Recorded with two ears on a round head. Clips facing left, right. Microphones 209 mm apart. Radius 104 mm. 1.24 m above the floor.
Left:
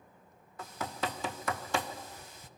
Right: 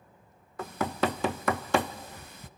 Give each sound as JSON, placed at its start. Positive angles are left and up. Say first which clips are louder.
{"t": 0.6, "sound": "knocking", "louder": "right 8 dB", "side_deg": -50, "distance_m": 0.6}